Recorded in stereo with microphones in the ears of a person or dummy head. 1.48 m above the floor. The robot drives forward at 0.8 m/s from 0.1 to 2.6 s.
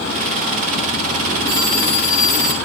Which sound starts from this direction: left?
A phone ringing, at 1.5 s.